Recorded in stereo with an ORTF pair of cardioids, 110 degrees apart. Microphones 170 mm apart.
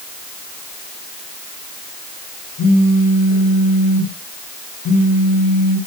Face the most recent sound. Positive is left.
turn(degrees=65)